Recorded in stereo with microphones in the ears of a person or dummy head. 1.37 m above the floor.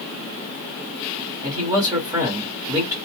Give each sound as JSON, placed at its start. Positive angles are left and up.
{"t": 1.4, "sound": "a man speaking", "side_deg": -20, "distance_m": 1.0}